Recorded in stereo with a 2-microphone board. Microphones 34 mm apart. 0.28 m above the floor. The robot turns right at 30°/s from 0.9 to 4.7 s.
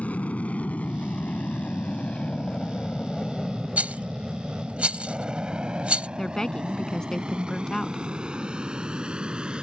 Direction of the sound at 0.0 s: 45° left (ahead or behind).